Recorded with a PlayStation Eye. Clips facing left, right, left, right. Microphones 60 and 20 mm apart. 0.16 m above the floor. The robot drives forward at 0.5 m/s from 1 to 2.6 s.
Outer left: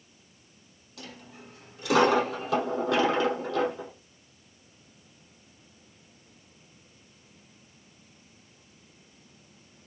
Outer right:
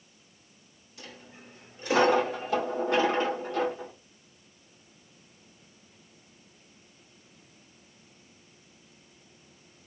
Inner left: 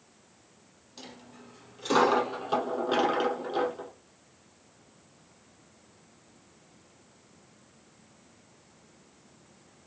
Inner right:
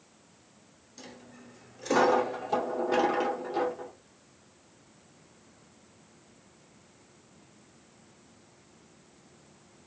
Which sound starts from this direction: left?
A dropped coin, at 1.0 s.